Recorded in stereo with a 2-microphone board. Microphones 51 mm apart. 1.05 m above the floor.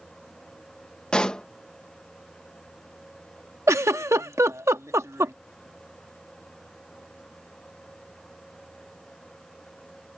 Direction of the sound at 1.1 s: 15° left (ahead or behind).